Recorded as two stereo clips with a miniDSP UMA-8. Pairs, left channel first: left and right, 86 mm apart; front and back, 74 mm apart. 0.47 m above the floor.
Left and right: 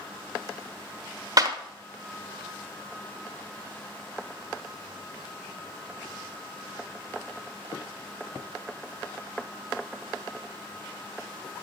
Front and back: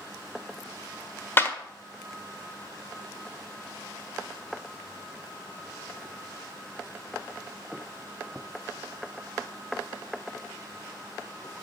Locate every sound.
1.4 s a clap: 55° right, 1.2 m